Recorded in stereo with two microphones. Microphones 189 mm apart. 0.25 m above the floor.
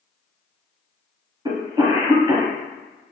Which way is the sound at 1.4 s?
20° right (ahead or behind).